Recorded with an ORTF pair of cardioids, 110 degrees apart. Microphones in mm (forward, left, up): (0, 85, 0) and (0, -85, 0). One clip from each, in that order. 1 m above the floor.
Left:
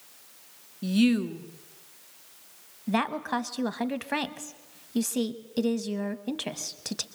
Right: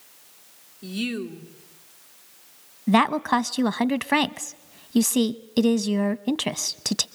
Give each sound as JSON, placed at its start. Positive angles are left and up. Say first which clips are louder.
{"t": 0.8, "sound": "a woman speaking", "louder": "left 4 dB", "azimuth_deg": 35, "distance_m": 1.7}
{"t": 2.9, "sound": "a woman speaking", "louder": "right 8 dB", "azimuth_deg": -35, "distance_m": 0.8}